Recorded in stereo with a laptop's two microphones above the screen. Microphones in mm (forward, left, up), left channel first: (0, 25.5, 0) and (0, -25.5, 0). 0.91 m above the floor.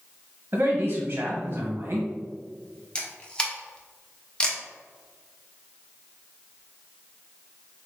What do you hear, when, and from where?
0.5 s a man speaking: 50° right (ahead or behind), 0.8 m
3.0 s a camera shutter: 20° left (ahead or behind), 0.6 m